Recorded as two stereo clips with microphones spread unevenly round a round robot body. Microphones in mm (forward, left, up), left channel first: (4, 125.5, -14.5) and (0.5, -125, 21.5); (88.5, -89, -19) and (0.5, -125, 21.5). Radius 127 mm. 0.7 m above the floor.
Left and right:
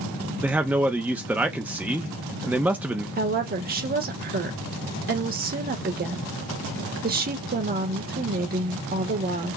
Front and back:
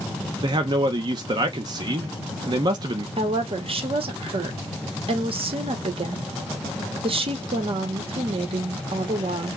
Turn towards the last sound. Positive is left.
turn(degrees=-140)